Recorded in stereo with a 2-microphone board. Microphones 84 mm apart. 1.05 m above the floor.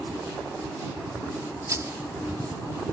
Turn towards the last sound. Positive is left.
turn(degrees=-40)  # may be behind; listen again after turning